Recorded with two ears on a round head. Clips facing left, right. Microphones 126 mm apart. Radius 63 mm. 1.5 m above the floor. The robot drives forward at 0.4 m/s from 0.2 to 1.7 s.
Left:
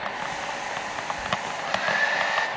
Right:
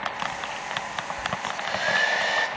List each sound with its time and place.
1.5 s a hair dryer: 35° right (ahead or behind), 1.5 m